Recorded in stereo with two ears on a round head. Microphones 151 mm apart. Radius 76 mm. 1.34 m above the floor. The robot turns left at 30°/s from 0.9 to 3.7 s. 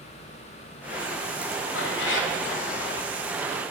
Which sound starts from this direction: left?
A cat meowing, at 1.8 s.